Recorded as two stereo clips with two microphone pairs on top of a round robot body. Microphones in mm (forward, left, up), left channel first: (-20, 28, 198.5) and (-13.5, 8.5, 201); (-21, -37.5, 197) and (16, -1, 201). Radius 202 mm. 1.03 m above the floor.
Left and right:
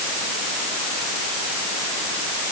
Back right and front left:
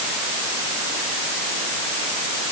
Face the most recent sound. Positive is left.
No sound to turn to.